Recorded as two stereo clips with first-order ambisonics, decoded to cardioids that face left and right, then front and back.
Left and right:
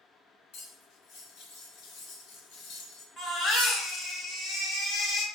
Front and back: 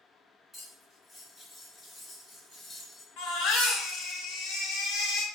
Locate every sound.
0.5 s cutlery clinking: 80° left, 1.1 m
3.2 s a baby crying: 25° left, 0.9 m